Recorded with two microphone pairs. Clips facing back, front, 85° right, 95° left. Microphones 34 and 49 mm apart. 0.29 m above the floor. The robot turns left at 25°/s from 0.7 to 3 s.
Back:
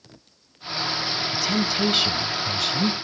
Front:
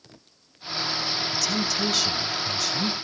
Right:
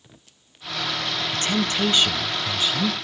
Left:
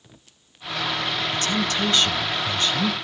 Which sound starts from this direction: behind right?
A woman speaking, at 1.3 s.